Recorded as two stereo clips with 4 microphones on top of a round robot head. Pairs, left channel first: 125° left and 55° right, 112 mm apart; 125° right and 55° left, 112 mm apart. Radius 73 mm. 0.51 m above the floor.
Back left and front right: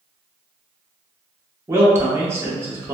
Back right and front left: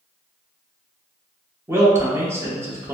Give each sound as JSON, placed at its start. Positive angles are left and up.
{"t": 1.7, "sound": "a man speaking", "azimuth_deg": 0, "distance_m": 1.0}